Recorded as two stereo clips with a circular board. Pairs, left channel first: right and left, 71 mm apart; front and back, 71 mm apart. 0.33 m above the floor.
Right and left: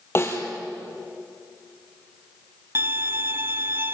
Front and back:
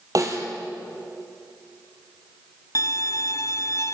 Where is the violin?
35° left, 0.5 m.